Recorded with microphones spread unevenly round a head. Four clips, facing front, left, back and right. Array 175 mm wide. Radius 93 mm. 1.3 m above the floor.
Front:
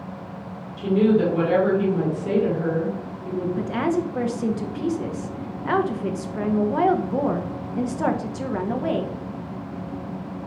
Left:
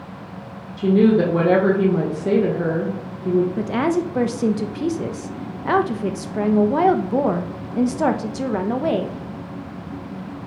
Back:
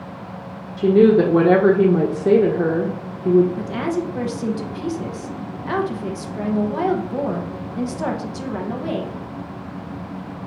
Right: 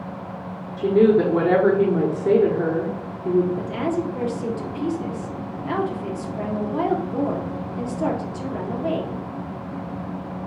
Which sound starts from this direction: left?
A woman speaking, at 3.6 s.